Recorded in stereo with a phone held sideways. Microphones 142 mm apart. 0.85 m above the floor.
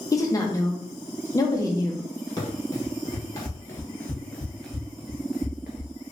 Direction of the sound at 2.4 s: 30° left (ahead or behind).